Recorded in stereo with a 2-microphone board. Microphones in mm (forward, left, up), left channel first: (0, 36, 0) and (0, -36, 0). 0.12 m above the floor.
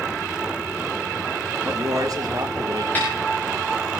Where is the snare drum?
25° left (ahead or behind), 8 m.